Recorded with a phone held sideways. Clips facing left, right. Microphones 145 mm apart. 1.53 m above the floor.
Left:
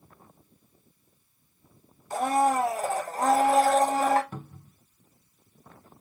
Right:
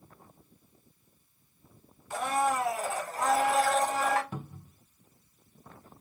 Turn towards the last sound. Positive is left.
turn(degrees=-10)  # may be behind; listen again after turning